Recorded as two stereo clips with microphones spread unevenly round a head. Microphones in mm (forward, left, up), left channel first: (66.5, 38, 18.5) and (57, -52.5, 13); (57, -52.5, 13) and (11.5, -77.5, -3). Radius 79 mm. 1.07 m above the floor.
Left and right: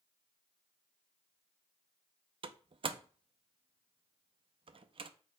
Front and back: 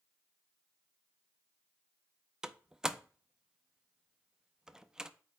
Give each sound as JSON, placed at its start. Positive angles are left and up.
{"t": 2.4, "sound": "a door slam", "azimuth_deg": -65, "distance_m": 0.7}